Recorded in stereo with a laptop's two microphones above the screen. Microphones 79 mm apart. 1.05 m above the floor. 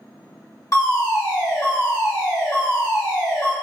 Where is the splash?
No splash in this recording.